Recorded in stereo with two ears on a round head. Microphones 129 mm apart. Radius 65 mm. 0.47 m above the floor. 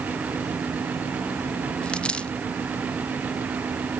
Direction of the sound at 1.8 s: 5° left (ahead or behind).